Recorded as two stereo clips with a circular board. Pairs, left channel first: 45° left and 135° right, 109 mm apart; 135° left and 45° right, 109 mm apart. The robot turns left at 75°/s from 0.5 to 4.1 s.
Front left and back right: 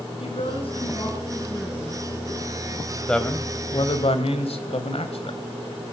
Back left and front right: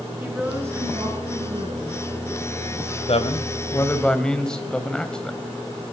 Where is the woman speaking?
30° left, 5.5 m; by 2.0 s 85° right, 5.5 m.